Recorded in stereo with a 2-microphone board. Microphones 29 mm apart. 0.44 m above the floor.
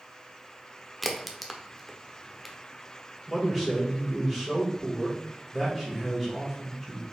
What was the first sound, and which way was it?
A crack, centre (ahead or behind).